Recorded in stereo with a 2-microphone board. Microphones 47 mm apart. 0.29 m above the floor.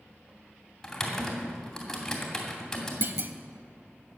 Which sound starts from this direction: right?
A clunk, at 3.0 s.